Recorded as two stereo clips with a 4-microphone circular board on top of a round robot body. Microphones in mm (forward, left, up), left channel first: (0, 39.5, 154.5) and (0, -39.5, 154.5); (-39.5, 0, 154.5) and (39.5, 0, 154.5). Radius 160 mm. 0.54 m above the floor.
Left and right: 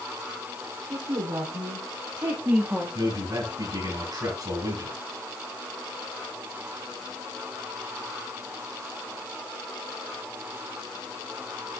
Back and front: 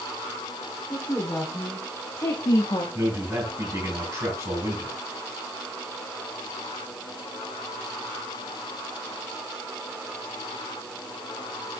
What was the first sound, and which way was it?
A woman speaking, 105° right.